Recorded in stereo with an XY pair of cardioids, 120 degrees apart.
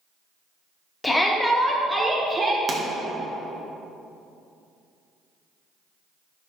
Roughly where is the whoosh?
I don't hear a whoosh.